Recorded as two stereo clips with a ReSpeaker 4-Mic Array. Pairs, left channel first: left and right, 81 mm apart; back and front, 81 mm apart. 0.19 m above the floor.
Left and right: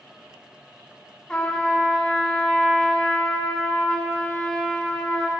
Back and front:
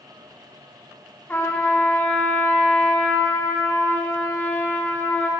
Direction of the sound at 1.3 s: 155° left.